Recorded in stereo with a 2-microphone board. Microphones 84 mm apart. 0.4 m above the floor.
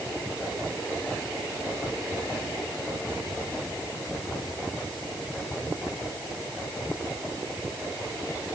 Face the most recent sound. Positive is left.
No sound to turn to.